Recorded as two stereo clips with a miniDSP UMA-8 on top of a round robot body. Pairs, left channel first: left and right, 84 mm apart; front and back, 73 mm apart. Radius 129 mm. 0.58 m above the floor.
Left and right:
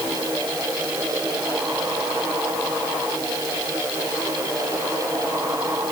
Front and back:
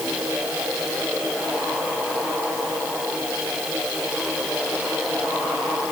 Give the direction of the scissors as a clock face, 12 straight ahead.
No scissors in this recording.